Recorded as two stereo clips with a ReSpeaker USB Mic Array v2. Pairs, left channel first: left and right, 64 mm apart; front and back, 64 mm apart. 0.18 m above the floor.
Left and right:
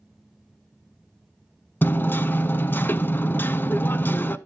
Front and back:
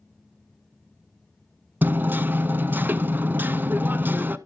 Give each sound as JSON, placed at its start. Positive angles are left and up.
{"t": 1.8, "sound": "hammering", "azimuth_deg": 135, "distance_m": 0.5}